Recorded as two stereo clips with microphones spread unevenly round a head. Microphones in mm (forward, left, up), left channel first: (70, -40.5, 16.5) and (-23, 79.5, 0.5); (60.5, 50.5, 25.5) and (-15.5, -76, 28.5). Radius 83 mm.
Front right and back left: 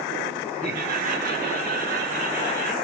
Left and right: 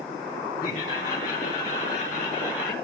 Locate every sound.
0.6 s laughter: 105° left, 8 m; by 2.7 s 115° left, 8.5 m